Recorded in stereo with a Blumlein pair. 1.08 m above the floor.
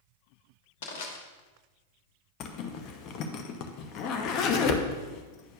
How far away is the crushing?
About 1.2 m.